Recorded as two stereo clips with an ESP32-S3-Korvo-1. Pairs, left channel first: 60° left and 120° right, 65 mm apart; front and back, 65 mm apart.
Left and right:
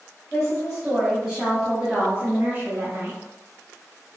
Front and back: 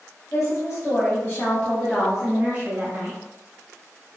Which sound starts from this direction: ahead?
A woman speaking, at 0.3 s.